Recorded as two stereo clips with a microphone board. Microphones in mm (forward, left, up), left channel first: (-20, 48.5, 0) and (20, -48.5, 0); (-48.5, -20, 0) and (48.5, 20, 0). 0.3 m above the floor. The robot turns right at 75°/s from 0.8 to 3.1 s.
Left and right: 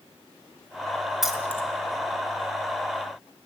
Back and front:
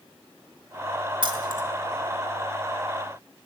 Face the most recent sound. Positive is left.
turn(degrees=160)